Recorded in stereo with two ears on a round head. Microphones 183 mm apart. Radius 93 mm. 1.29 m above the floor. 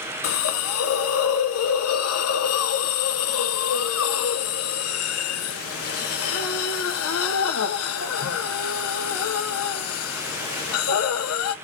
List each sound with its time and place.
0.2 s a hiss: 85° left, 0.6 m